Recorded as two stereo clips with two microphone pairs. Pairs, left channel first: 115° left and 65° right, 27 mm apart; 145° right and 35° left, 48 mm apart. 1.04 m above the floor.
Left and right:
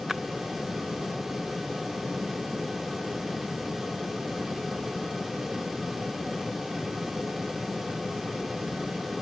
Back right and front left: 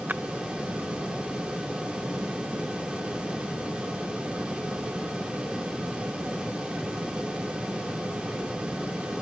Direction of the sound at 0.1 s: 15° left.